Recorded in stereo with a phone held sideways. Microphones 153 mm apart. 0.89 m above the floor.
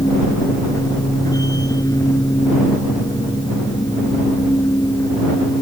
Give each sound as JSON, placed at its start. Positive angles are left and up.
{"t": 0.0, "sound": "a machine running", "side_deg": 25}